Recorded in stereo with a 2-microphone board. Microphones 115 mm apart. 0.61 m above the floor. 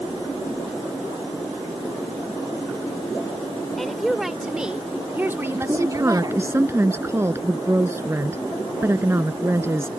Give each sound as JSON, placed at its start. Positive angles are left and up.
{"t": 3.8, "sound": "a woman speaking", "side_deg": 5}
{"t": 5.5, "sound": "a woman speaking", "side_deg": -25}